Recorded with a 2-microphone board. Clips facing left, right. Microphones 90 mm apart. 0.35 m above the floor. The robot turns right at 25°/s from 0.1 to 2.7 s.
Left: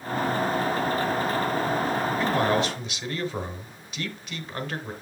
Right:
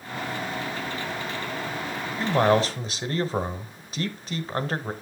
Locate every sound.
2.2 s a man speaking: 30° right (ahead or behind), 1.0 m; by 4.9 s 35° right (ahead or behind), 1.0 m